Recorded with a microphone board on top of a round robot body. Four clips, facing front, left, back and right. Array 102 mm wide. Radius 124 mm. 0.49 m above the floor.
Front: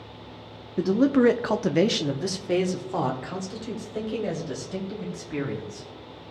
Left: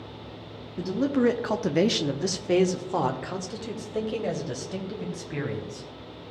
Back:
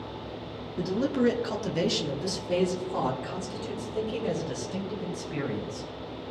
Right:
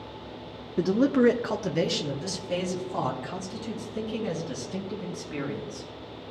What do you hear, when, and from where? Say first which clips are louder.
0.8 s a man speaking: right 3 dB, front 6 dB; 45° right, 0.9 m; by 5.9 s 80° left, 3.5 m